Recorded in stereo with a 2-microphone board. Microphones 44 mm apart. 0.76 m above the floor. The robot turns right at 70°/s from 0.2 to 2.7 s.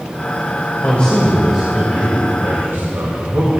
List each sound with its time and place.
0.8 s a man speaking: 140° left, 3 m; by 3.6 s 90° right, 3 m